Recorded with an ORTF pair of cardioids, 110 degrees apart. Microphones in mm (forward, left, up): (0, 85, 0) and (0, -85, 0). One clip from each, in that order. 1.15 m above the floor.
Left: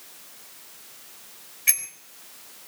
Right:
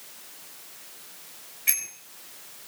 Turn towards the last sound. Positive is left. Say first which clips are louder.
# left 2 dB
turn(degrees=20)